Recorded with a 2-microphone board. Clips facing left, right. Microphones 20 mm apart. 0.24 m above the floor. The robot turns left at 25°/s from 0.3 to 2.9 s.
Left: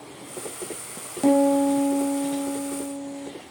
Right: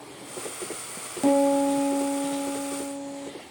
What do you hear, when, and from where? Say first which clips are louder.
1.2 s a piano: left 2 dB; 5° left, 1.3 m; by 3.3 s 40° right, 1.3 m